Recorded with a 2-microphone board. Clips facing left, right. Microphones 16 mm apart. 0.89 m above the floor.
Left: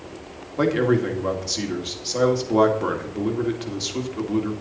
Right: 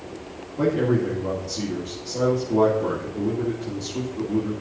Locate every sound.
0.6 s a man speaking: 60° left (ahead or behind), 2.5 m